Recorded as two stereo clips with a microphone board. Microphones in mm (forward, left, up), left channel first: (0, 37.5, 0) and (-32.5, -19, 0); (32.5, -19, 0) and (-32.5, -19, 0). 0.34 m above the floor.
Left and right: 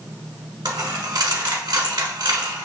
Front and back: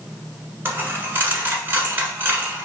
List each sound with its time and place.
0.7 s a dropped coin: 120° right, 1.1 m